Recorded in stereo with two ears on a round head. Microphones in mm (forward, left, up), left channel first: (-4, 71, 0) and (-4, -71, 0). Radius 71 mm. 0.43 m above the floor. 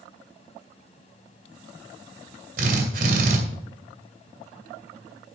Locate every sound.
2.6 s a drill: 60° right (ahead or behind), 2.5 m